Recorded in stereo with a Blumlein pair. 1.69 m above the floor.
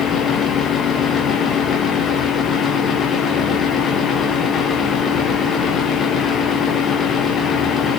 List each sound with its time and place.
0.0 s a fan: 20° left, 1.7 m